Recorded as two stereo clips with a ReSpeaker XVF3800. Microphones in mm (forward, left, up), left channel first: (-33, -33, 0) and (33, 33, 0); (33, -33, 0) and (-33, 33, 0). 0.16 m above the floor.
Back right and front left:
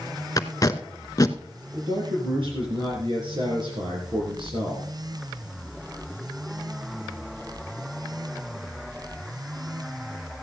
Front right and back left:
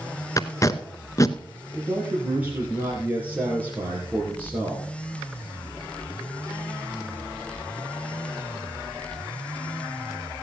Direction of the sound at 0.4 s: 90° right.